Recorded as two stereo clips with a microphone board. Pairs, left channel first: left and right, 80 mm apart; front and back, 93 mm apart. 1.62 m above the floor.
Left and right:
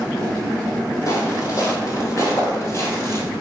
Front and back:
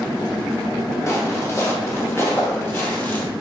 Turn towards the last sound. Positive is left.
turn(degrees=60)